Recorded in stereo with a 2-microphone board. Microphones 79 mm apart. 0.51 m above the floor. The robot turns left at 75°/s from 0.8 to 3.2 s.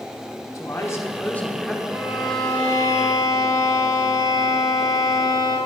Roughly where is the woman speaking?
Left.